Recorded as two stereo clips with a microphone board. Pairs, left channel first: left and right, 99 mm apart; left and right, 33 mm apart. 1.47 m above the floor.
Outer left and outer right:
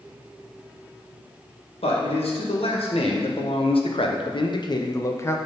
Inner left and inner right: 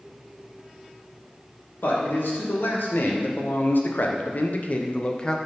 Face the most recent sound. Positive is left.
turn(degrees=25)  # may be behind; listen again after turning